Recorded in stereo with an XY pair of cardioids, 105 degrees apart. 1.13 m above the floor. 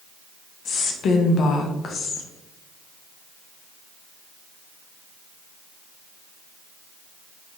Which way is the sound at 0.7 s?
60° left.